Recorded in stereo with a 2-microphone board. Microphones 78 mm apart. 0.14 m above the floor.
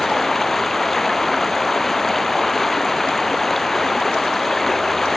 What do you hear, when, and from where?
0.0 s running water: 5° left (ahead or behind)